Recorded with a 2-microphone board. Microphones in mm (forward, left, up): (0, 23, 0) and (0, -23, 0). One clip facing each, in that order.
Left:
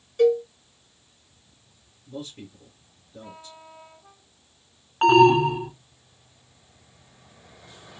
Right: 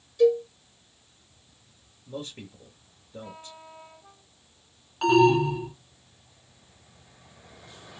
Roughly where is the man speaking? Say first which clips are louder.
Even; right.